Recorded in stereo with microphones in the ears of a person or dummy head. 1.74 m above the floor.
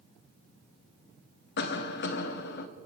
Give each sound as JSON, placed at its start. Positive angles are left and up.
{"t": 1.6, "sound": "a cough", "side_deg": 60, "distance_m": 1.8}